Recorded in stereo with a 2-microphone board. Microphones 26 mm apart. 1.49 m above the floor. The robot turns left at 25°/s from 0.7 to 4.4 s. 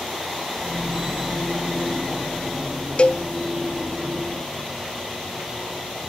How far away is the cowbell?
About 0.8 m.